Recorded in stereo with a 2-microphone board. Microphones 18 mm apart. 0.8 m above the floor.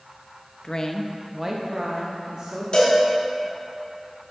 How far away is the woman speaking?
About 0.6 m.